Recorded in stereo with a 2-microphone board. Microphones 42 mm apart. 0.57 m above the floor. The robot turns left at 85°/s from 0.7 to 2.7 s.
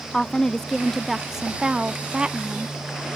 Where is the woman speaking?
10° left (ahead or behind); by 2.8 s 15° right (ahead or behind).